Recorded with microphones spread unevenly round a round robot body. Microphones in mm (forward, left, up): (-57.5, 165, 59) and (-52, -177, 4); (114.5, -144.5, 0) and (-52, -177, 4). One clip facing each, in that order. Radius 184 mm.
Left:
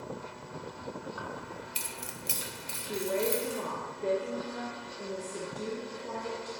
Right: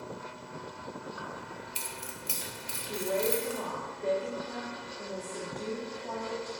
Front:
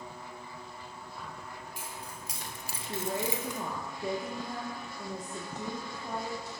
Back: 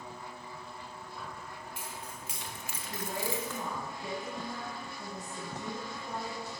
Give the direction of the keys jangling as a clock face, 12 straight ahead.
9 o'clock.